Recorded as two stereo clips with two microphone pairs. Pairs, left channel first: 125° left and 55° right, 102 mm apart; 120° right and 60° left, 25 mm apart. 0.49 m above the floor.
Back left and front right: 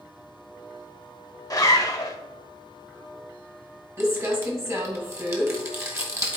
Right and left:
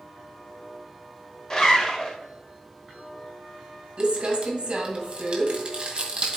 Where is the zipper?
Straight behind, 1.1 m.